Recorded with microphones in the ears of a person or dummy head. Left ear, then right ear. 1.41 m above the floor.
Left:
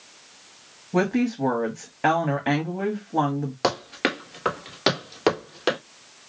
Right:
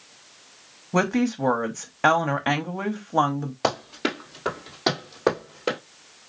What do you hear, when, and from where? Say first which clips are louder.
0.9 s a woman speaking: even; 35° right (ahead or behind), 0.7 m
3.6 s running footsteps: left 1 dB; 15° left (ahead or behind), 1.5 m; by 5.8 s 55° left (ahead or behind), 2.5 m